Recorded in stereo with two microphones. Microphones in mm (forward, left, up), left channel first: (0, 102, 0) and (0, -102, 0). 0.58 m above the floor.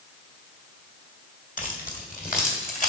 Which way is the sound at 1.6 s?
40° left (ahead or behind).